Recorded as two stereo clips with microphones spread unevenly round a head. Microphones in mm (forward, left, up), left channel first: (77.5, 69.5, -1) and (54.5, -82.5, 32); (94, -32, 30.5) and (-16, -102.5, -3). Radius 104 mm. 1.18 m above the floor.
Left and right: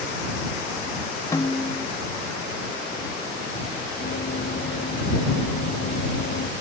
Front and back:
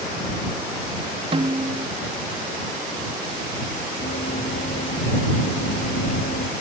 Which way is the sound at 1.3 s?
160° left.